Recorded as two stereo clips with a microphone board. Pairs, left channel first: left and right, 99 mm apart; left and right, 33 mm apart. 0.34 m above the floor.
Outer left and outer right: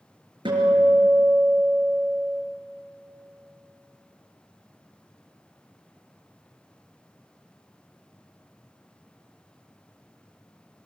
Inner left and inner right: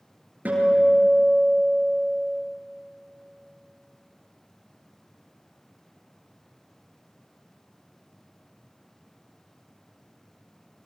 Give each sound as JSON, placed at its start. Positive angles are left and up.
{"t": 0.5, "sound": "a guitar", "side_deg": -55, "distance_m": 6.0}